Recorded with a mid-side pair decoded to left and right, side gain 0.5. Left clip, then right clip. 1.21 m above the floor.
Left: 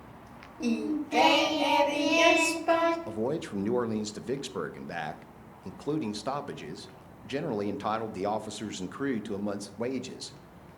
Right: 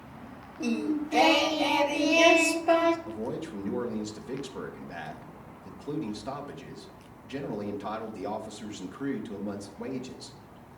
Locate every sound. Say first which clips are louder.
0.6 s singing: right 1 dB; 5° left, 1.0 m
3.1 s a man speaking: left 3 dB; 45° left, 0.8 m